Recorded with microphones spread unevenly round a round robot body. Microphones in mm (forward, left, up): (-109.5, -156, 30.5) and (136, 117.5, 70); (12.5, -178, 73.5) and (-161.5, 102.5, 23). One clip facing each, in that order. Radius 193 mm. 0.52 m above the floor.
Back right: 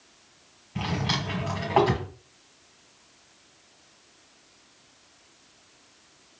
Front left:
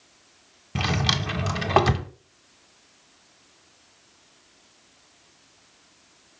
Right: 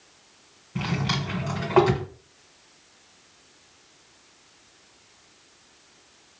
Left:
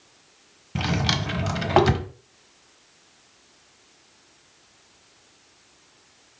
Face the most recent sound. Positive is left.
turn(degrees=80)